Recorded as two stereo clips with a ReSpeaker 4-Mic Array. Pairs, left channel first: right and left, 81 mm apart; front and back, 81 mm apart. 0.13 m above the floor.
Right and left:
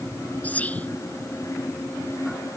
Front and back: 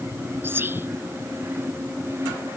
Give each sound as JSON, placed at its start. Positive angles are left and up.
{"t": 0.4, "sound": "whispering", "azimuth_deg": -145}